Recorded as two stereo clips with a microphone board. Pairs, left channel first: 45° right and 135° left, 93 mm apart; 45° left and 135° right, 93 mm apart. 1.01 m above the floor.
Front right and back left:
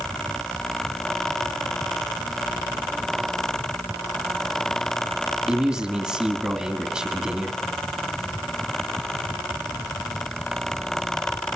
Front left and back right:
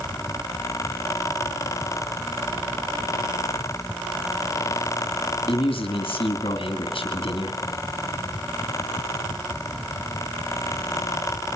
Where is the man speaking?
60° left, 2 m.